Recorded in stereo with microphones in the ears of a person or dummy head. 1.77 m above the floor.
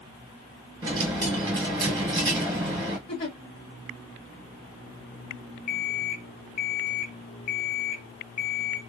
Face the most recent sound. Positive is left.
turn(degrees=30)  # may be behind; listen again after turning